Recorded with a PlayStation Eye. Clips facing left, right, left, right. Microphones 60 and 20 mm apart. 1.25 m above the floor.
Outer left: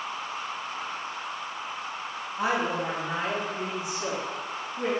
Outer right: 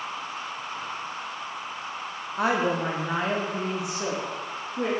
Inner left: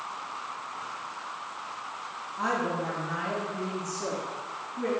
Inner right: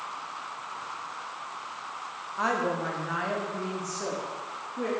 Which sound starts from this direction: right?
A woman speaking, at 2.4 s.